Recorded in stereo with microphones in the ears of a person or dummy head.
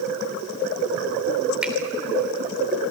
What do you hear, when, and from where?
1.6 s a finger snap: 5° right (ahead or behind), 3 m